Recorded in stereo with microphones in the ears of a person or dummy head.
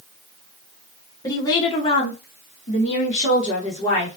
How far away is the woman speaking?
About 0.8 m.